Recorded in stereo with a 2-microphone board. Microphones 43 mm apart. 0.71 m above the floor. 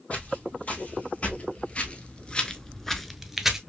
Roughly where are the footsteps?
Left.